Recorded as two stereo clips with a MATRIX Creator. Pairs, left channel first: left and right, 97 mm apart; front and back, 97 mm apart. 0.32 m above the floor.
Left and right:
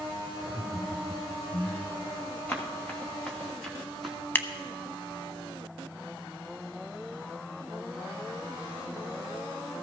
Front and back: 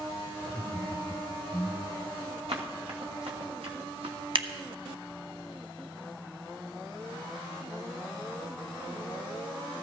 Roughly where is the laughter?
Ahead right.